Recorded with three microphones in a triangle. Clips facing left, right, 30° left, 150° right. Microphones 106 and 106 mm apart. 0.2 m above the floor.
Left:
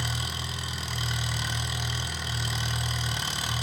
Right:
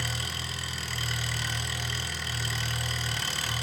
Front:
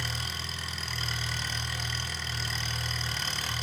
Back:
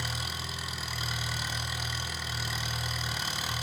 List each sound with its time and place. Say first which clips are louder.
0.0 s an engine running: left 2 dB, even; 140° left, 1.4 m